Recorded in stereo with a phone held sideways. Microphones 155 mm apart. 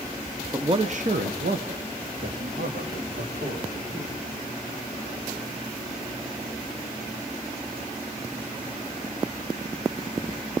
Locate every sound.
0.5 s a man speaking: 20° right (ahead or behind), 0.8 m; by 4.2 s 80° right, 4.5 m